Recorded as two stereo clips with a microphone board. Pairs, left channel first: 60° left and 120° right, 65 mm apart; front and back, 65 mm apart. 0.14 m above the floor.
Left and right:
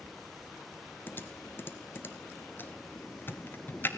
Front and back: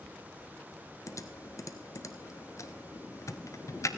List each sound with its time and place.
1.1 s typing on a keyboard: 15° left, 0.8 m